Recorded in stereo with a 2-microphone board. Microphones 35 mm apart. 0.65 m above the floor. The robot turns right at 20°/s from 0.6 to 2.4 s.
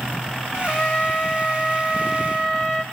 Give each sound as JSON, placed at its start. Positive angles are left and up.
{"t": 0.5, "sound": "a trumpet", "azimuth_deg": 160, "distance_m": 1.8}